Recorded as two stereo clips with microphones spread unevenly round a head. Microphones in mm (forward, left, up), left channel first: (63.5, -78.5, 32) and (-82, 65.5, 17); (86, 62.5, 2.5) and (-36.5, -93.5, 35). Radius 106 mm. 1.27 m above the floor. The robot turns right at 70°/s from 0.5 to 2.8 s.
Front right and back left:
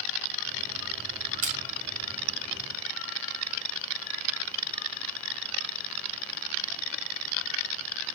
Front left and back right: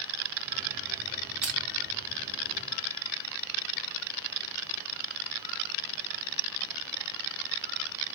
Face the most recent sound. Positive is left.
turn(degrees=-100)